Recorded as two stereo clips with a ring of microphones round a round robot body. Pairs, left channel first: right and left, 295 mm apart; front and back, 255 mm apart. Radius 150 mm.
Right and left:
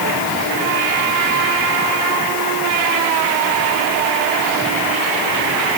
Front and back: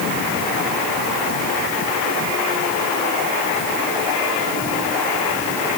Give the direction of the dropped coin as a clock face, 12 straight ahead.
No dropped coin in this recording.